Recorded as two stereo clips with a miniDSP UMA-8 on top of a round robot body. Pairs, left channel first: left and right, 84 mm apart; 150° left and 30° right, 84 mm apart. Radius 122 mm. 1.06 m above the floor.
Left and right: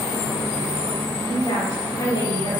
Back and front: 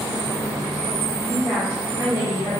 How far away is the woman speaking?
About 5 m.